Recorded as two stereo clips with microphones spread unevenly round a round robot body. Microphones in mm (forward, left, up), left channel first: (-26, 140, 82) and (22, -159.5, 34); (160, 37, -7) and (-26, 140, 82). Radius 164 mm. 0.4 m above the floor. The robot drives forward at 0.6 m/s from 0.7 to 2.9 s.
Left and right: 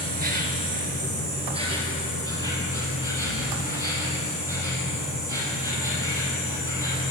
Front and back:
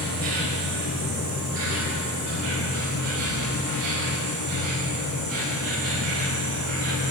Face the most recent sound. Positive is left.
turn(degrees=-165)